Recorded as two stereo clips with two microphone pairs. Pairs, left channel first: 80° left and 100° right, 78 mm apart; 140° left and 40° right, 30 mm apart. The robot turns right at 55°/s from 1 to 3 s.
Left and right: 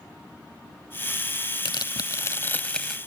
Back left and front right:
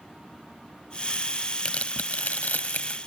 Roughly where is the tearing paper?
Left.